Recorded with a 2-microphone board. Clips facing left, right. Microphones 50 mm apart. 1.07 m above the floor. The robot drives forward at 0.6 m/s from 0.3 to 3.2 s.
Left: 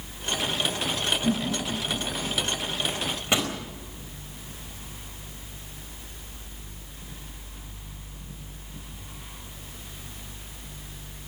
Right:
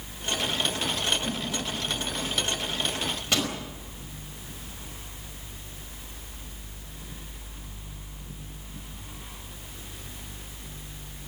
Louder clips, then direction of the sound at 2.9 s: Left 2 dB; 25° left (ahead or behind).